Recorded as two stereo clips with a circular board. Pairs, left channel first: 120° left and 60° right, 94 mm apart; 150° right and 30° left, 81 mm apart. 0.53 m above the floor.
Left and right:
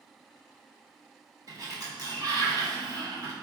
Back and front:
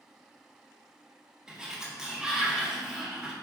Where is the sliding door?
50° right, 0.9 m.